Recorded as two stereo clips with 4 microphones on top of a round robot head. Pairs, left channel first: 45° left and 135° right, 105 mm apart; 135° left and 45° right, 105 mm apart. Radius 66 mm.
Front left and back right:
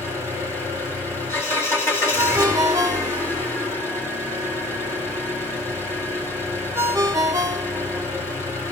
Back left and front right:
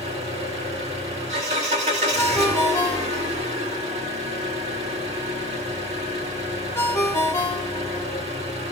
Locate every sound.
0.0 s an engine running: 20° right, 3.5 m
2.2 s a ringtone: straight behind, 0.6 m